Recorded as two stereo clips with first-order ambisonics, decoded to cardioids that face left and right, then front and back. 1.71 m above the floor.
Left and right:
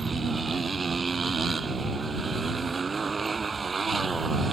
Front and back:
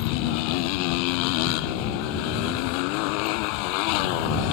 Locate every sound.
0.0 s a motorcycle: 15° right